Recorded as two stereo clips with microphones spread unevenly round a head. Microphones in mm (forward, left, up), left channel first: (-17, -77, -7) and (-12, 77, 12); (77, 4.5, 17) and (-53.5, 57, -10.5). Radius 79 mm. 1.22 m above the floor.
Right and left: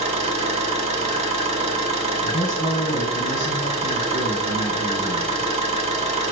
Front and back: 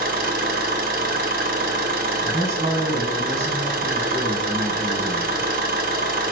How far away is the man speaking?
About 1.7 m.